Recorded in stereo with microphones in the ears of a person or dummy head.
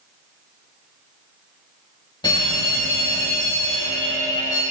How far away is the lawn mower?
I don't hear a lawn mower.